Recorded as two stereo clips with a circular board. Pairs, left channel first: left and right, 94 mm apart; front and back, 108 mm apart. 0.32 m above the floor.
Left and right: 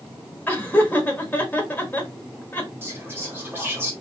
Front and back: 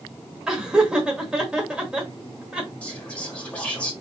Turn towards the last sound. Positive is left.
turn(degrees=-65)